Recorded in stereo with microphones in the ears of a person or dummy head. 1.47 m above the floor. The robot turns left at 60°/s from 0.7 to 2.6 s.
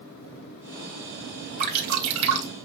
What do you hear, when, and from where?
1.6 s dripping: 45° right (ahead or behind), 3 m; by 2.5 s 85° right, 3 m